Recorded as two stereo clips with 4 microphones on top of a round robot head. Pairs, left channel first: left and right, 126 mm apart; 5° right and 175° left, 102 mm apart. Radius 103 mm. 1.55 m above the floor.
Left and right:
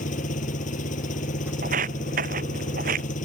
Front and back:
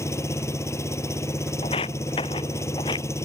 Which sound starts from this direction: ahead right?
Footsteps, at 1.6 s.